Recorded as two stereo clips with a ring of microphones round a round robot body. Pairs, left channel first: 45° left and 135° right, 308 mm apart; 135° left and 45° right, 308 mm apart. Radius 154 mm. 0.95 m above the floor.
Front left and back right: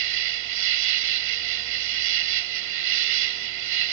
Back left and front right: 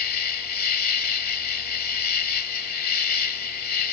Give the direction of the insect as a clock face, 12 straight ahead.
6 o'clock.